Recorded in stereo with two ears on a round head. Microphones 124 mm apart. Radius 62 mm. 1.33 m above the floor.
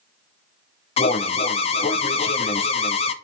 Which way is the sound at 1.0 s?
45° left (ahead or behind).